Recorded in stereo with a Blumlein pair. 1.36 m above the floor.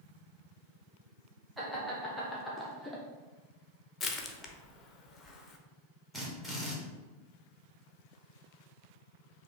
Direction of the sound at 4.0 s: 15° left.